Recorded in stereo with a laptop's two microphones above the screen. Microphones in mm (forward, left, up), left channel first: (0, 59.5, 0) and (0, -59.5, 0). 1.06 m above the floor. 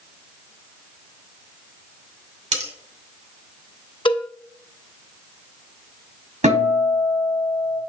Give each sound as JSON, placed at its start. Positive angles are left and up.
{"t": 2.5, "sound": "cutlery clinking", "side_deg": -85, "distance_m": 2.5}
{"t": 4.0, "sound": "a cowbell", "side_deg": 40, "distance_m": 0.6}
{"t": 6.4, "sound": "a guitar", "side_deg": -80, "distance_m": 4.5}